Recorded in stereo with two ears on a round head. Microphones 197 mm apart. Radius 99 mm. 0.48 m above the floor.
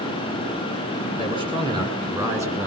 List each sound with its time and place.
1.2 s a man speaking: 25° right (ahead or behind), 4.5 m; by 2.7 s 10° right (ahead or behind), 4.5 m